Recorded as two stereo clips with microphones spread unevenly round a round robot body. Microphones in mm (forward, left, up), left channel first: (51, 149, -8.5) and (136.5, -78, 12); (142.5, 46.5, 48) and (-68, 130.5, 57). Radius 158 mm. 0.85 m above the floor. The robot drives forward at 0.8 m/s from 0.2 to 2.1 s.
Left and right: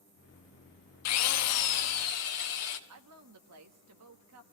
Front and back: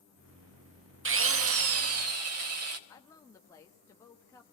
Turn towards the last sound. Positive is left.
turn(degrees=-100)